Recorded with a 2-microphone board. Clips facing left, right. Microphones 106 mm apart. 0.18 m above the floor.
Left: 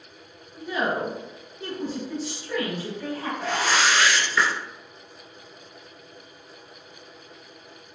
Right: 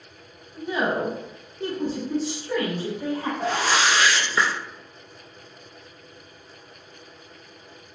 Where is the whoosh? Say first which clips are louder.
Even; 40° right (ahead or behind), 0.9 m.